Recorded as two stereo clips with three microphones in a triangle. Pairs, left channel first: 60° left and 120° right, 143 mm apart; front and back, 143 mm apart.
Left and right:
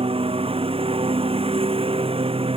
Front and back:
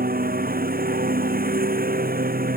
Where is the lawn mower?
170° right.